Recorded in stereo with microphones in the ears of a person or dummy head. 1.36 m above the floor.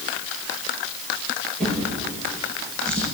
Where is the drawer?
10° left (ahead or behind), 9 m.